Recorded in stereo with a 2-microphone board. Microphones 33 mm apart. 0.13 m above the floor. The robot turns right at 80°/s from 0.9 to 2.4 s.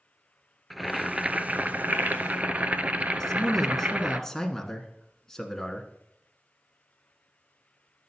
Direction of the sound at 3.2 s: 10° left (ahead or behind).